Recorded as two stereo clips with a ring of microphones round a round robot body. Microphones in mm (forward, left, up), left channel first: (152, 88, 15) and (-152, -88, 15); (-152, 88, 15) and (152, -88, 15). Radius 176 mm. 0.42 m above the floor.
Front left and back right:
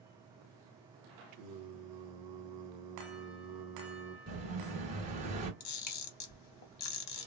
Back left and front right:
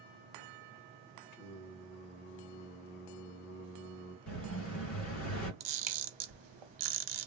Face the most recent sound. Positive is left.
turn(degrees=-15)